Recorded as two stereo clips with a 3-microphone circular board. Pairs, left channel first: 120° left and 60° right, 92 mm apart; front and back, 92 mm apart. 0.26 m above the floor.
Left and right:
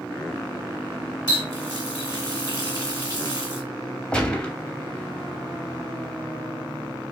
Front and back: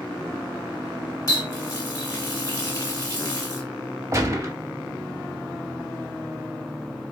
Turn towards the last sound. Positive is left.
turn(degrees=-170)